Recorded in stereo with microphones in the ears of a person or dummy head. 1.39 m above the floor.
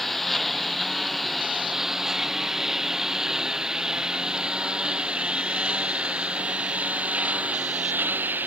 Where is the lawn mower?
5° right (ahead or behind); by 8.5 s 20° right (ahead or behind).